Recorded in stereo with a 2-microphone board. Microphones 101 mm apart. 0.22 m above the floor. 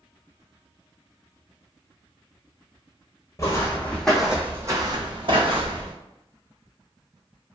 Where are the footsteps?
30° left (ahead or behind), 0.8 m; by 5.9 s 75° right (ahead or behind), 1.0 m.